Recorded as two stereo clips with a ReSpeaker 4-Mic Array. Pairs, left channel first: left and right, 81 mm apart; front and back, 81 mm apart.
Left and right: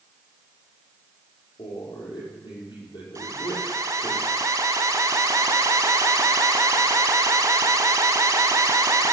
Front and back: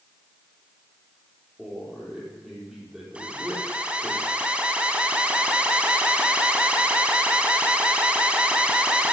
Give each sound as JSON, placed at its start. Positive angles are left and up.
{"t": 1.6, "sound": "a man speaking", "azimuth_deg": 95, "distance_m": 6.0}
{"t": 3.1, "sound": "an alarm", "azimuth_deg": -110, "distance_m": 1.6}